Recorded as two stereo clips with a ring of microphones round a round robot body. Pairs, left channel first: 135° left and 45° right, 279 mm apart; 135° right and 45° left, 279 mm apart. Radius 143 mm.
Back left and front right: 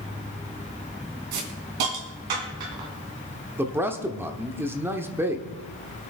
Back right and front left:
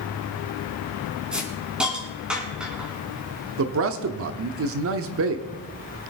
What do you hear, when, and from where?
1.3 s a hiss: 40° right, 3 m
3.6 s a man speaking: 35° left, 1.0 m